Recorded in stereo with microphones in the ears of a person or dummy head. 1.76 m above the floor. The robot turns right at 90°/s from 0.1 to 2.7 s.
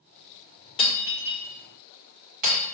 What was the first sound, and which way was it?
Breaking glass, 25° left (ahead or behind).